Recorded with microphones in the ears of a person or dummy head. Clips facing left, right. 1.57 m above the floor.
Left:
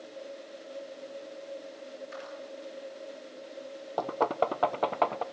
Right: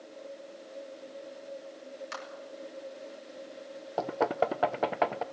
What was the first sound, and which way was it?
A clap, 85° right.